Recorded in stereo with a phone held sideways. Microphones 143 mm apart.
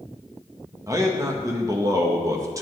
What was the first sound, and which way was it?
A man speaking, 25° right (ahead or behind).